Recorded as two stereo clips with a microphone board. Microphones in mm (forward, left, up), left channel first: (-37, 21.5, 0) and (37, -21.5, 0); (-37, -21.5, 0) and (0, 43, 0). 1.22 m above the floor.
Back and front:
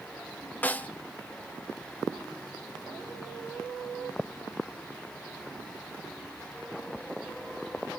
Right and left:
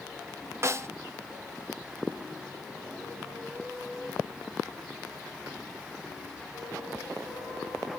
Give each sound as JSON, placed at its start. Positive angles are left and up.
{"t": 0.6, "sound": "a snare drum", "azimuth_deg": 90, "distance_m": 0.7}